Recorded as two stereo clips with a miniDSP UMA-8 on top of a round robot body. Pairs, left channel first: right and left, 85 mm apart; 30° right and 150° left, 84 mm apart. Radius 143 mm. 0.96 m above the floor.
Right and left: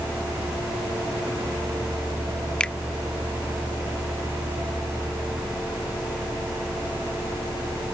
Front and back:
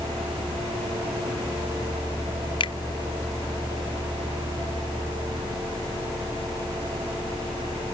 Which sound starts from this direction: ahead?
A finger snap, at 2.6 s.